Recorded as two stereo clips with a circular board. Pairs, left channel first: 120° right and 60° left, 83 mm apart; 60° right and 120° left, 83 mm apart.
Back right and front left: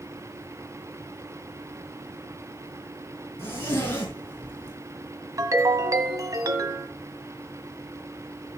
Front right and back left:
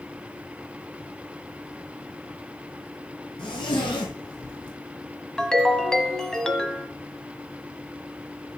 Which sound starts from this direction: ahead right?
A zipper, at 3.4 s.